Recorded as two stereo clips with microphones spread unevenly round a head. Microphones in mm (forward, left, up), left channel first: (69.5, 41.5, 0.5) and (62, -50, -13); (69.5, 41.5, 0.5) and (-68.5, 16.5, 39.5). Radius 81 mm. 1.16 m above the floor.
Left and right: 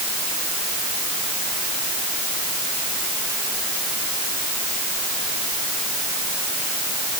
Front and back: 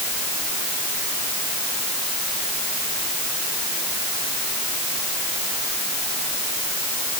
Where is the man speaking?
I don't hear a man speaking.